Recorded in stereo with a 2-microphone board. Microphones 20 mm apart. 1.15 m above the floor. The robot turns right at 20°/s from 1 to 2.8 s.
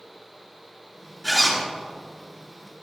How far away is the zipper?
About 3.5 m.